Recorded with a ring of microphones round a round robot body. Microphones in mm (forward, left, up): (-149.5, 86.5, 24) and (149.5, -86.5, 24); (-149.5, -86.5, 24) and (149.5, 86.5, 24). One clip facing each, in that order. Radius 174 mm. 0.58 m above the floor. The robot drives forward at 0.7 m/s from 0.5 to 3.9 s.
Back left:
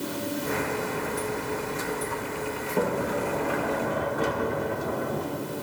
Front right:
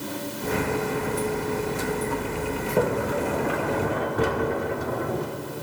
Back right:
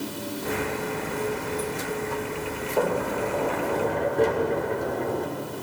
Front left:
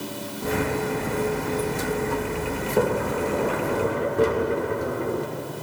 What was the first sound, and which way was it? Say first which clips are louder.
A sliding door: front right 2 dB, front left 2 dB; 30° right.